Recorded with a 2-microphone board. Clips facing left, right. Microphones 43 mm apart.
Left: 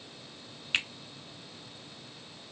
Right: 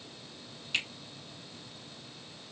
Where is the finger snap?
35° left (ahead or behind), 1.5 m.